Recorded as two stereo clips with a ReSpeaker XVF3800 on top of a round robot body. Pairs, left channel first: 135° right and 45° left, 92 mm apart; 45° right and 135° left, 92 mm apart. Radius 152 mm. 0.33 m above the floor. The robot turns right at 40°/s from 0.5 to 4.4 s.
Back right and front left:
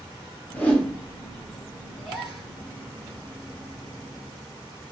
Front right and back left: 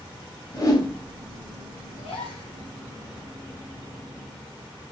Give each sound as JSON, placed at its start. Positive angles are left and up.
{"t": 0.5, "sound": "a whoosh", "azimuth_deg": -70, "distance_m": 0.8}
{"t": 2.0, "sound": "a gasp", "azimuth_deg": -55, "distance_m": 1.4}